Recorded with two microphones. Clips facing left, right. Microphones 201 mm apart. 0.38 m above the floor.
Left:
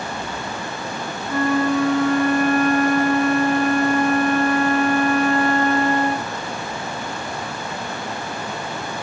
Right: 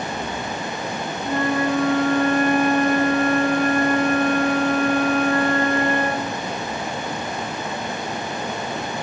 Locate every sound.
1.2 s a flute: 80° right, 5 m